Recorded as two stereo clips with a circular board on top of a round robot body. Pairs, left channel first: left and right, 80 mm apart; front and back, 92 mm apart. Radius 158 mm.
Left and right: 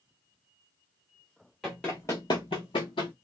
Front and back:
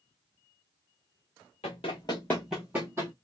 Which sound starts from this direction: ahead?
Running footsteps, at 1.6 s.